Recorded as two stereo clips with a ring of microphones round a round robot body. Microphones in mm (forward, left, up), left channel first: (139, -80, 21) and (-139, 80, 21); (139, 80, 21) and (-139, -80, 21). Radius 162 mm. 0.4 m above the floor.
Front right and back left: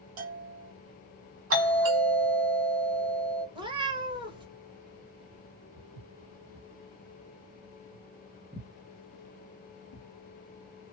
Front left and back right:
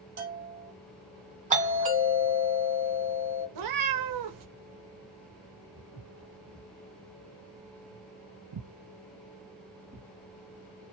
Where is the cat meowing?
135° right, 0.7 m.